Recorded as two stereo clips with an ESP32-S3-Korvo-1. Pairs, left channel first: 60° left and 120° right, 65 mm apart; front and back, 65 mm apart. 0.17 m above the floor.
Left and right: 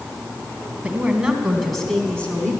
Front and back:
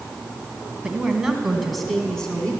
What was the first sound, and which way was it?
A woman speaking, 135° right.